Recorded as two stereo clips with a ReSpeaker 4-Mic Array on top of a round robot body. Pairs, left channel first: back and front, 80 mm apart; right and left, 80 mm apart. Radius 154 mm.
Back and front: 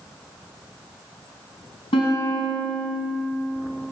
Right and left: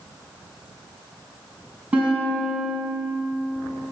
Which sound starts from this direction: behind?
A guitar, at 1.9 s.